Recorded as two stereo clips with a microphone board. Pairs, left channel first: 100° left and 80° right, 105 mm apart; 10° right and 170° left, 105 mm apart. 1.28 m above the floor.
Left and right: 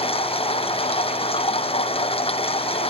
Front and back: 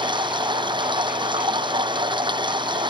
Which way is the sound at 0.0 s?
130° left.